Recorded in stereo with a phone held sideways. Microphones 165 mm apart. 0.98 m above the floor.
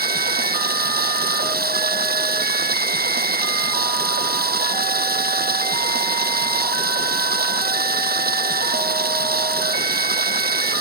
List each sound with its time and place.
0.0 s running water: 80° right